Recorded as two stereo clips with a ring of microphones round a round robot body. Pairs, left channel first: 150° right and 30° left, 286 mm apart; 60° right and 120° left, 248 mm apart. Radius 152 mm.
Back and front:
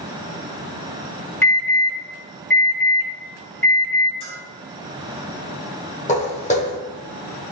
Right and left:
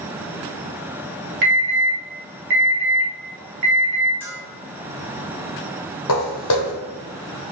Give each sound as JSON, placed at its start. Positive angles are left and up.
{"t": 1.4, "sound": "an alarm", "azimuth_deg": 130, "distance_m": 1.4}
{"t": 4.2, "sound": "a bell", "azimuth_deg": -125, "distance_m": 1.5}
{"t": 6.1, "sound": "footsteps", "azimuth_deg": -85, "distance_m": 0.7}